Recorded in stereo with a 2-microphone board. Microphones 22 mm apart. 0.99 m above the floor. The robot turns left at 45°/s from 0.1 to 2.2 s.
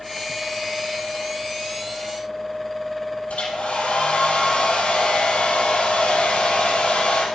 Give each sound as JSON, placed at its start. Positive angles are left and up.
{"t": 3.3, "sound": "a hair dryer", "side_deg": 80, "distance_m": 5.0}